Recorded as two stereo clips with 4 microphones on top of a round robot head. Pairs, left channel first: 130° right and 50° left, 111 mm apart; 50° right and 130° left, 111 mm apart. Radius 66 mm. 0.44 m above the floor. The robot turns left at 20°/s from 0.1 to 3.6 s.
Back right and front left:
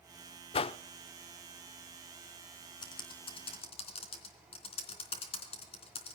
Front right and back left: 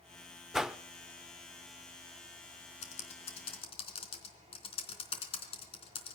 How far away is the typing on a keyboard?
About 3.5 m.